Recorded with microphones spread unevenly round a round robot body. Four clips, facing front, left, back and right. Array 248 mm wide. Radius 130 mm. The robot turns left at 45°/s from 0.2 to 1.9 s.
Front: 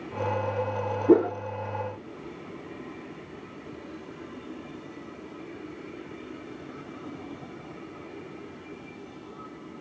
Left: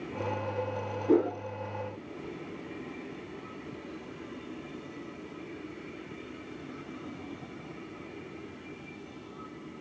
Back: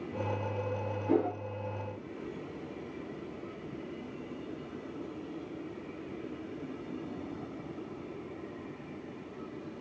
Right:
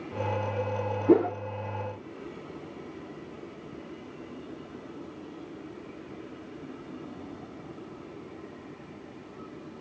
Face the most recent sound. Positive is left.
turn(degrees=-65)